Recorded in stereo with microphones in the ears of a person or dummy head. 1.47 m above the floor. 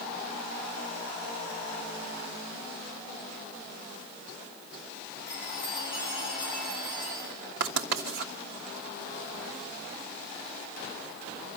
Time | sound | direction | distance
5.3 | a chime | 25° left (ahead or behind) | 9 m
7.6 | writing | 60° right (ahead or behind) | 2.5 m